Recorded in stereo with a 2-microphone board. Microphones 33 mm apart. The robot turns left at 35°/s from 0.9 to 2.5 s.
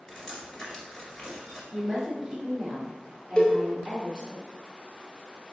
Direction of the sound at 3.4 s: 35° left (ahead or behind).